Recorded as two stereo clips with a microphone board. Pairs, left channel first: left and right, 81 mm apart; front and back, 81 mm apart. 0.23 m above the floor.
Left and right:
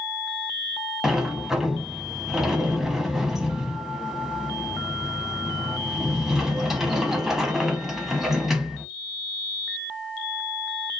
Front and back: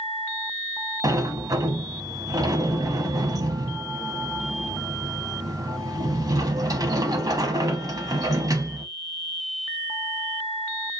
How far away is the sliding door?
About 0.8 m.